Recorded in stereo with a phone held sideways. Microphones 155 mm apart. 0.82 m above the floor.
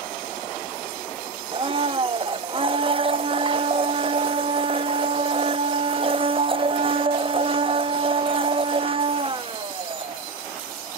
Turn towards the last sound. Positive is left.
turn(degrees=-35)  # may be behind; listen again after turning